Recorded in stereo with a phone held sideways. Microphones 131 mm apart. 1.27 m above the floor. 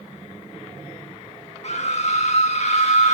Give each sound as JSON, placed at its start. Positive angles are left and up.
{"t": 1.6, "sound": "a scream", "side_deg": 55, "distance_m": 2.5}